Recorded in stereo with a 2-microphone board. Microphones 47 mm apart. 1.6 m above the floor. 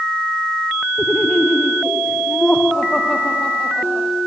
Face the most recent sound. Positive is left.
turn(degrees=15)  # may be behind; listen again after turning